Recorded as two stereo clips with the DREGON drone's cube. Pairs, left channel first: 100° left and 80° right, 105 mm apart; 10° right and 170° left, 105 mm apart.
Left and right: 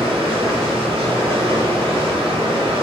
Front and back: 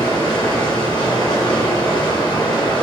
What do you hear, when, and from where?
0.0 s running water: 55° right, 1.2 m